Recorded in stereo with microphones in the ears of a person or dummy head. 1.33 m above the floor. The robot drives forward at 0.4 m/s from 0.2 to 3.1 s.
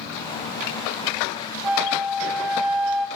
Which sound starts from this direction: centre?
A flute, at 1.6 s.